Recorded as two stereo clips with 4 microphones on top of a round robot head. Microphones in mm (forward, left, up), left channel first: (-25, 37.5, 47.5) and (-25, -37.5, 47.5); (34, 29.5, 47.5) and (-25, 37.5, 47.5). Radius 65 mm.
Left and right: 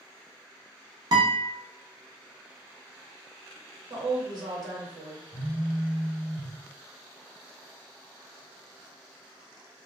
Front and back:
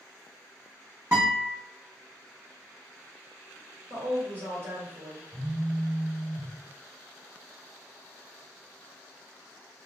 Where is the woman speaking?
125° right, 1.2 m.